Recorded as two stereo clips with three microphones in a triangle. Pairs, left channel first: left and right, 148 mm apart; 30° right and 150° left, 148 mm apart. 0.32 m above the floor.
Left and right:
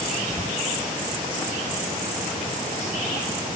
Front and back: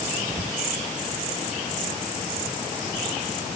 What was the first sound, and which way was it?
Only background noise.